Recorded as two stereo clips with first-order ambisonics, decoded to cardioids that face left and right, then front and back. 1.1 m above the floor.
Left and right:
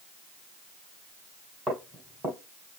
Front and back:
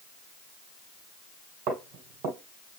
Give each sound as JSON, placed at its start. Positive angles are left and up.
{"t": 1.7, "sound": "footsteps", "azimuth_deg": -160, "distance_m": 1.8}